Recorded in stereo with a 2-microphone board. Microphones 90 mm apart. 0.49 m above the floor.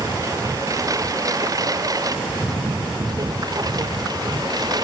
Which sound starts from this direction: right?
A lawn mower, at 0.0 s.